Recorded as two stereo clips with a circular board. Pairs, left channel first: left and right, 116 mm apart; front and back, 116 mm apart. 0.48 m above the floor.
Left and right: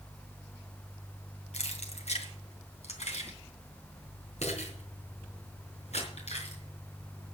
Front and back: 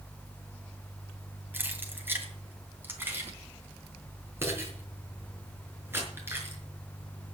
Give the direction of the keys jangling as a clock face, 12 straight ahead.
8 o'clock.